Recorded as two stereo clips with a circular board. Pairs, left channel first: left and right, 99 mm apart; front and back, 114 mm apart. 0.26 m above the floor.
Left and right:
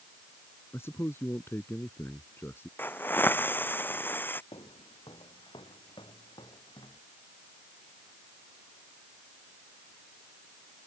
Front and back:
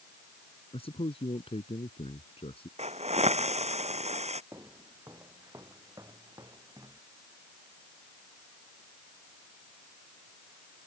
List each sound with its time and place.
0.7 s a man speaking: 25° left
2.8 s a hiss: 160° left
4.5 s footsteps: 120° left; by 7.0 s 125° left